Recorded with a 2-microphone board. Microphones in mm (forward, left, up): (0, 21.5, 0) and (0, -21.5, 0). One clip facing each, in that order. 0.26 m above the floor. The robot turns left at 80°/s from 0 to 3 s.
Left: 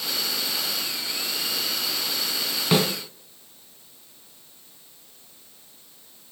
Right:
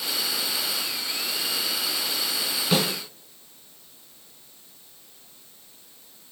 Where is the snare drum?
35° left (ahead or behind), 2.5 m; by 2.9 s 45° left (ahead or behind), 2.5 m.